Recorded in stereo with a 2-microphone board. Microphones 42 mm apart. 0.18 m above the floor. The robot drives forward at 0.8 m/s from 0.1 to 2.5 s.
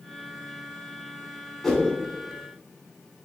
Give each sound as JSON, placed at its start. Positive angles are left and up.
{"t": 1.6, "sound": "a whoosh", "side_deg": 10, "distance_m": 0.9}